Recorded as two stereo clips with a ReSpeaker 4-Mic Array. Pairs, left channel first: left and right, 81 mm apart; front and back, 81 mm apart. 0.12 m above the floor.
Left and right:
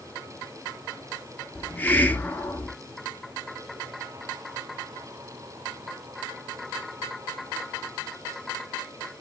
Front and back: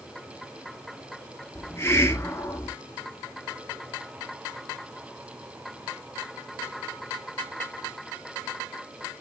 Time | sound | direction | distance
1.6 | a hiss | 35° left | 0.5 m